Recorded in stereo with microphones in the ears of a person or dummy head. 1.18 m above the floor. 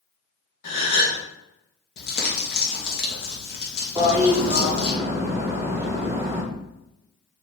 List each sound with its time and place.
0.6 s a gasp: 50° left (ahead or behind), 1.0 m
2.0 s crumpling: 55° left (ahead or behind), 0.9 m
4.0 s a toilet flushing: 15° right (ahead or behind), 0.6 m